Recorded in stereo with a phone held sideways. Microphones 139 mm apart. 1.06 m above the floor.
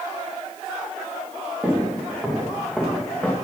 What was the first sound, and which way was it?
Footsteps, 5° right (ahead or behind).